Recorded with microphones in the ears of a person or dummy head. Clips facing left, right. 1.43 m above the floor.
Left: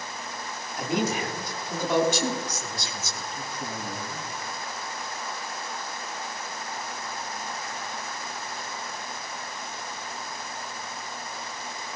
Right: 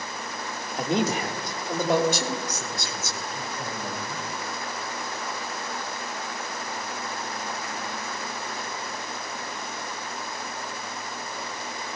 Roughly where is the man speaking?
Right.